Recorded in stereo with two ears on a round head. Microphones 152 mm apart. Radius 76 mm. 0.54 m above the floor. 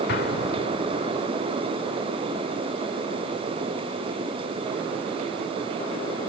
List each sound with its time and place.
0.1 s an explosion: 60° left (ahead or behind)